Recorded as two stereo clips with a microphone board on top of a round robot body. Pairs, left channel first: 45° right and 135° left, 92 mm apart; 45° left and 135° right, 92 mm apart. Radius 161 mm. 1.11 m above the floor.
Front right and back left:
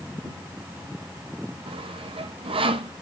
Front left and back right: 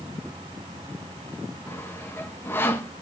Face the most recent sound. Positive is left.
turn(degrees=110)